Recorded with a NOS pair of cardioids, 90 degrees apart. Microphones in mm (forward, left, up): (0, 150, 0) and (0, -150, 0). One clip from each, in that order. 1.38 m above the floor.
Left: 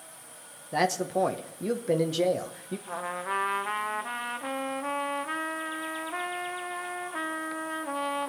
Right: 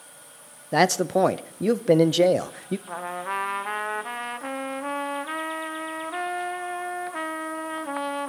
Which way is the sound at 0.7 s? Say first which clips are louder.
Right 6 dB; 40° right.